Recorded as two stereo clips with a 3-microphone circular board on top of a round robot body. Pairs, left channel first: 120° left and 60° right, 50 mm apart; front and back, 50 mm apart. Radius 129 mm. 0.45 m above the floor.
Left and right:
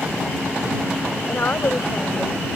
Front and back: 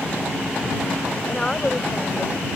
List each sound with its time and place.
1.3 s a woman speaking: 75° left